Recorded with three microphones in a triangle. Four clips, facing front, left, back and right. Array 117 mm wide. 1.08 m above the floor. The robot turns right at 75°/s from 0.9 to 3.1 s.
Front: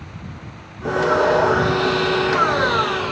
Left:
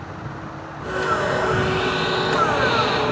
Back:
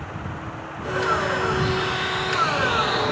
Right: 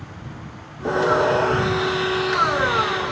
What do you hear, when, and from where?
0.8 s sawing: 55° right; by 3.1 s 110° left